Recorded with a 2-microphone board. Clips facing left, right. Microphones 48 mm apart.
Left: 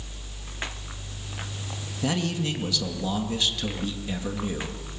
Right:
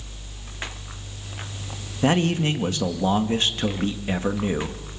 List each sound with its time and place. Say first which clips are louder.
2.0 s a man speaking: right 7 dB; 40° right (ahead or behind), 2 m